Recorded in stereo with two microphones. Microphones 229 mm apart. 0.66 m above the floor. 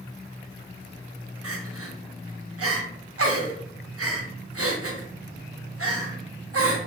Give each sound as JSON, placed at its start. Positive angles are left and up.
{"t": 1.4, "sound": "crying", "side_deg": -80, "distance_m": 0.6}